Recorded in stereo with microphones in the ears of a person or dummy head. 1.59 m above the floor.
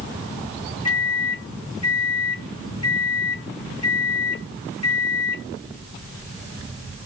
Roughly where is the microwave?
Left.